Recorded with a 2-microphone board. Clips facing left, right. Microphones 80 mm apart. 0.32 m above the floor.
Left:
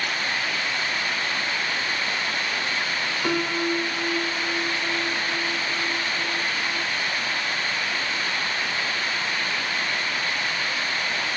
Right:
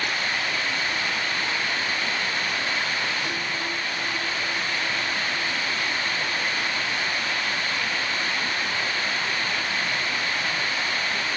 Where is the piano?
85° left, 1.1 m.